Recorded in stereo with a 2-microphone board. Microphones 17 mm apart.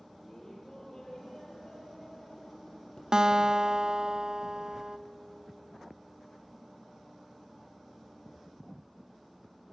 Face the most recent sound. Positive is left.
turn(degrees=-40)  # may be behind; listen again after turning